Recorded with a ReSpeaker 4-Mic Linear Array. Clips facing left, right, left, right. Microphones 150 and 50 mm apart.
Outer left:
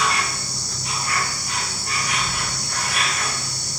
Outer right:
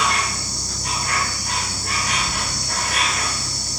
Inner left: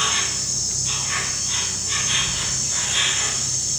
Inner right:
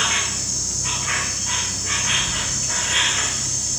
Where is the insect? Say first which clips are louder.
Outer right 1 dB, inner right 1 dB; 75° right (ahead or behind), 4.5 m.